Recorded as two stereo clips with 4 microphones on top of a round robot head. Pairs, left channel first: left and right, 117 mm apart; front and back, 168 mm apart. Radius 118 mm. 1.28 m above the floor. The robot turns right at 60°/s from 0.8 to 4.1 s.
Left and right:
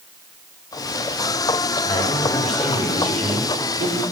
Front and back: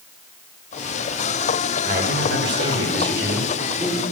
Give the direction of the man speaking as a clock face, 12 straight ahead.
7 o'clock.